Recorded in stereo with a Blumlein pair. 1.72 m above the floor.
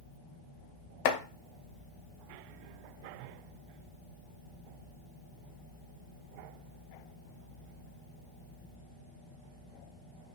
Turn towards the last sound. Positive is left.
turn(degrees=45)